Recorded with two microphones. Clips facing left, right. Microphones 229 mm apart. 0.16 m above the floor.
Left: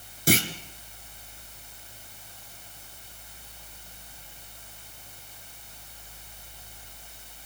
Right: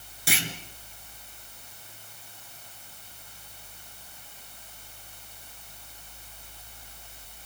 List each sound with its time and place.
0.3 s a clunk: 45° left (ahead or behind), 2.5 m